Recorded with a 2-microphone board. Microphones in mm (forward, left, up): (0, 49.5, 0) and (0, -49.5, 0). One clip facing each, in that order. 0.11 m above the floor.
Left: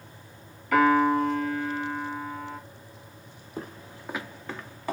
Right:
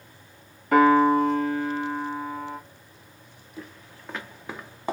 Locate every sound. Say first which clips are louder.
0.7 s a piano: right 3 dB; 40° right (ahead or behind), 1.1 m
3.6 s footsteps: left 4 dB; 50° left (ahead or behind), 0.5 m; by 4.9 s 25° right (ahead or behind), 0.8 m